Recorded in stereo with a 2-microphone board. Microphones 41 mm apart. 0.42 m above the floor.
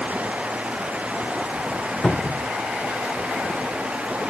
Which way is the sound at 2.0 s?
20° left (ahead or behind).